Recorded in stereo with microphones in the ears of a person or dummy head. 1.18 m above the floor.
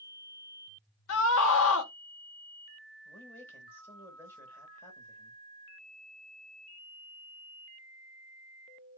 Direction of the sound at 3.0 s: 5° left (ahead or behind).